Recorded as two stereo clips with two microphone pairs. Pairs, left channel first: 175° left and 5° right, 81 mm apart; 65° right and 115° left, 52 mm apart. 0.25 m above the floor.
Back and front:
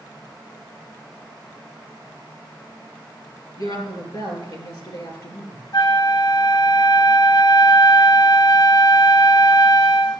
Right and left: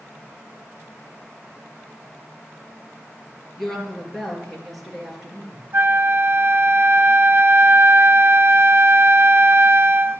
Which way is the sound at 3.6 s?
150° right.